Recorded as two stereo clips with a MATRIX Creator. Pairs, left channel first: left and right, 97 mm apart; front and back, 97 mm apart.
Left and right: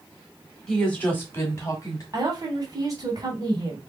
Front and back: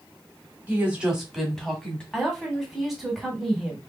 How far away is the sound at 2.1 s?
About 1.6 m.